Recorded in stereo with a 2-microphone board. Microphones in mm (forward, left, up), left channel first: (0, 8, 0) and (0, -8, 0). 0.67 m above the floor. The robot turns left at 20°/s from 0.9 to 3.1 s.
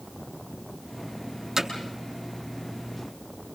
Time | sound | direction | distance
1.6 | hammering | 35° right (ahead or behind) | 6.5 m